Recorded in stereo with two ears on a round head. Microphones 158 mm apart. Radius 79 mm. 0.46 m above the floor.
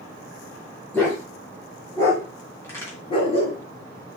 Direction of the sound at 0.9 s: 10° left (ahead or behind).